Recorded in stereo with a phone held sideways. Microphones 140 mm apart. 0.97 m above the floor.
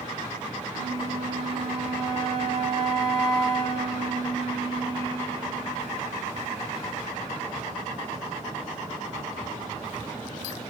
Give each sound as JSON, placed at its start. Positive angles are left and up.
{"t": 0.7, "sound": "a flute", "side_deg": -45, "distance_m": 3.0}